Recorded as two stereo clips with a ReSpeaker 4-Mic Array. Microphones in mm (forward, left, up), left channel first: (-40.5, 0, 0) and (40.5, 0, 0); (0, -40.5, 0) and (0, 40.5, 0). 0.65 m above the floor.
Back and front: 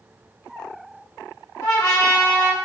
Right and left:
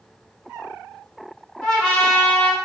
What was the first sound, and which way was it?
A trumpet, 170° right.